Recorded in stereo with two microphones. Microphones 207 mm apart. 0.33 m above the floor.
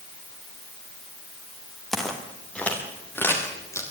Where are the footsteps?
Centre (ahead or behind), 4.5 m; by 3.8 s 15° left (ahead or behind), 5.5 m.